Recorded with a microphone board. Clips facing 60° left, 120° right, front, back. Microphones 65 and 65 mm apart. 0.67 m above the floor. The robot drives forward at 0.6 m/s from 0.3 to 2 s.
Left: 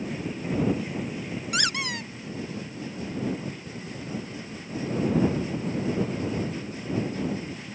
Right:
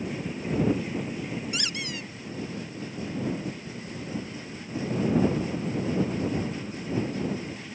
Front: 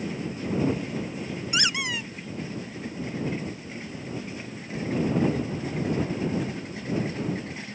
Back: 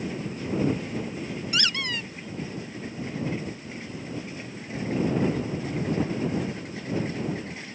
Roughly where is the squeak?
Left.